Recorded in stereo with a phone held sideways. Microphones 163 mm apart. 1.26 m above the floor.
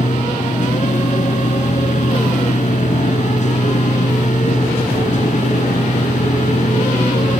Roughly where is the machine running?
Left.